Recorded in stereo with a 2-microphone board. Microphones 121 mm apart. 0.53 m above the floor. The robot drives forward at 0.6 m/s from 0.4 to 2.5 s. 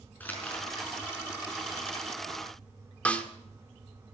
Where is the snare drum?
10° left (ahead or behind), 1.4 m.